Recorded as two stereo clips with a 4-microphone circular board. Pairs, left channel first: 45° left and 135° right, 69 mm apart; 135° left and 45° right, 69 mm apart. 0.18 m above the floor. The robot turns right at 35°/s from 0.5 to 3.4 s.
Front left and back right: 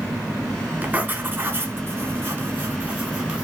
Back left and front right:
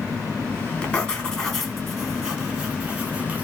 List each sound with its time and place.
0.8 s writing: 170° right, 1.5 m; by 3.4 s 75° right, 1.5 m